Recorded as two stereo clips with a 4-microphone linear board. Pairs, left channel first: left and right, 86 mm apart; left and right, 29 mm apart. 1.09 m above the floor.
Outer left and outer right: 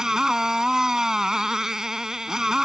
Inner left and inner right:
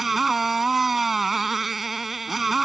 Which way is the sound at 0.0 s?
5° right (ahead or behind).